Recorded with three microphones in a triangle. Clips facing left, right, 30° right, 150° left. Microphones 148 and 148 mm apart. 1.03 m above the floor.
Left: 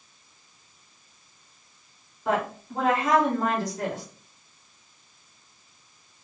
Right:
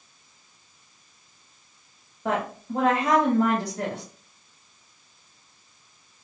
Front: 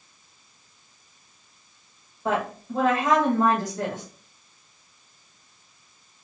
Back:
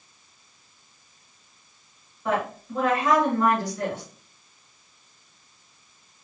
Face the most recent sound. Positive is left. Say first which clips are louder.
# left 1 dB, even
turn(degrees=-100)